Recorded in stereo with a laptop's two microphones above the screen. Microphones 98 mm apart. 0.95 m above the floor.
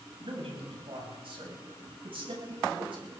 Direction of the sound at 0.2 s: 70° right (ahead or behind).